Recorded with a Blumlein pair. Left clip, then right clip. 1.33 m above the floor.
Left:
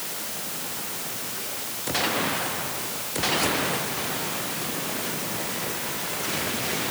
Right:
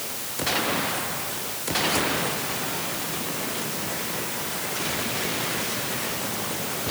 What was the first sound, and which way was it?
Only background noise.